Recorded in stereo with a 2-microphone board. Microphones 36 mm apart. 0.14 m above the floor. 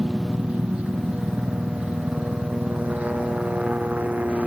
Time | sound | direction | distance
0.0 | a helicopter | 30° right (ahead or behind) | ?